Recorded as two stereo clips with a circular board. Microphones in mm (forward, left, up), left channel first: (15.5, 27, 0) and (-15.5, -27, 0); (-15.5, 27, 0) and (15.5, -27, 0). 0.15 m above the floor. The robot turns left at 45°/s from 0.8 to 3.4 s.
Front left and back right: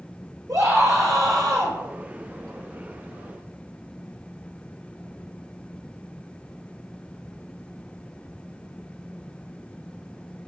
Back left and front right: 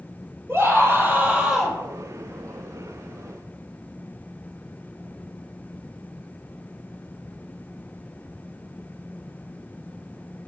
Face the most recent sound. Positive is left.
turn(degrees=135)